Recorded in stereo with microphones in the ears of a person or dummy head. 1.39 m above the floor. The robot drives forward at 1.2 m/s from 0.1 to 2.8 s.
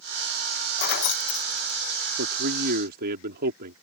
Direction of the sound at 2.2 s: 70° right (ahead or behind).